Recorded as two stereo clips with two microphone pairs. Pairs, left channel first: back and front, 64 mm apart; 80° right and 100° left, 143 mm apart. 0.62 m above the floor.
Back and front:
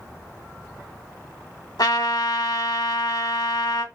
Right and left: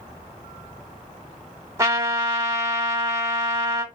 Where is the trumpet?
175° left, 0.8 m.